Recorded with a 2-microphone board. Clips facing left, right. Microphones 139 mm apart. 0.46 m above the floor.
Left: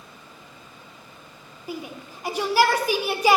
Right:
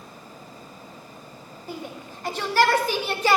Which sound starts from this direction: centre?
A shout, at 1.7 s.